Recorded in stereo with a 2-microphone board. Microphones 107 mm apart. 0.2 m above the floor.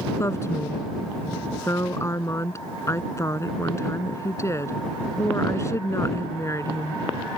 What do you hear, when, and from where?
0.2 s a woman speaking: 30° left (ahead or behind)